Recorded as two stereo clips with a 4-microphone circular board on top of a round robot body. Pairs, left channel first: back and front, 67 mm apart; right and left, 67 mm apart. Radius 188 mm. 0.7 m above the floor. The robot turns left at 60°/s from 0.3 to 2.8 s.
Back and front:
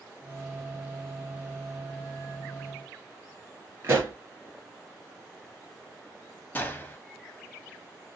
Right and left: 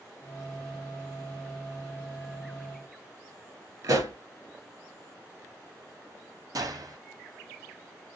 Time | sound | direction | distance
3.8 | a pop | 60° left | 2.5 m
6.5 | a gunshot | 115° left | 1.6 m